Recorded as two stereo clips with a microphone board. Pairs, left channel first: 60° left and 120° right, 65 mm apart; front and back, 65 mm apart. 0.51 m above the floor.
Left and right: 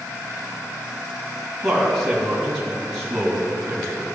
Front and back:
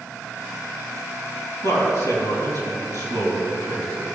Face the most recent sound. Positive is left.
turn(degrees=-25)